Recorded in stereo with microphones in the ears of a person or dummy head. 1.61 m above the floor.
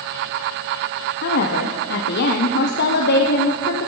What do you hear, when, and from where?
1.2 s a woman speaking: 60° left (ahead or behind), 0.8 m